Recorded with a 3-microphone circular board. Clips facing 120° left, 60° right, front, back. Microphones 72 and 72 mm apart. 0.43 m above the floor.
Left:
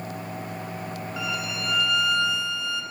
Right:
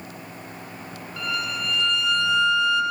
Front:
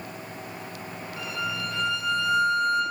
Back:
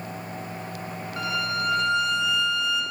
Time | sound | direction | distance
1.2 | a violin | 165° right | 3 m